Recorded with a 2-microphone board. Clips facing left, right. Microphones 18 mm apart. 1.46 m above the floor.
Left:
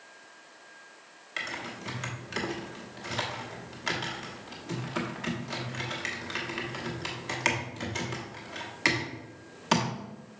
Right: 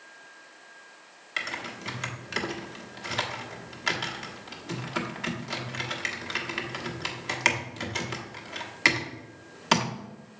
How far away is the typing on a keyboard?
About 1.1 m.